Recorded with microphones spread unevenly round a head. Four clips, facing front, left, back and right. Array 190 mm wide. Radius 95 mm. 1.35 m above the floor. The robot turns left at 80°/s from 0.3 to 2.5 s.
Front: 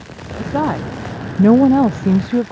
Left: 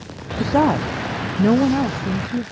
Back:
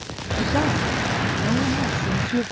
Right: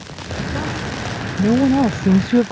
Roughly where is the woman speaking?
Left.